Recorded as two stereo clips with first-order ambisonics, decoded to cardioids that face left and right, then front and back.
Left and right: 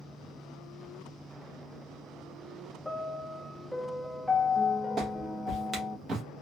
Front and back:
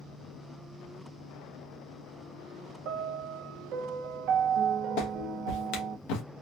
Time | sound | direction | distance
2.9 | a piano | straight behind | 0.6 m
5.0 | a clap | 20° right | 1.2 m